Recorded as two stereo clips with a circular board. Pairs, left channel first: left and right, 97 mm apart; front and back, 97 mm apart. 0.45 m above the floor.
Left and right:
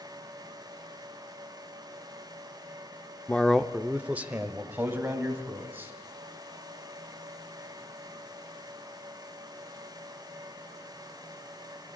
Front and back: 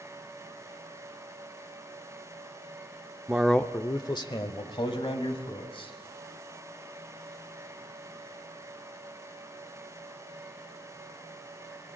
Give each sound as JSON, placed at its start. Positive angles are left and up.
{"t": 3.3, "sound": "a man speaking", "azimuth_deg": 145, "distance_m": 0.7}